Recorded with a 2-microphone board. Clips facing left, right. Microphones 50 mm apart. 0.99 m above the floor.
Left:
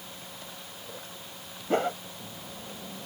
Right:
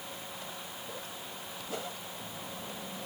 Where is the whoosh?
45° left (ahead or behind).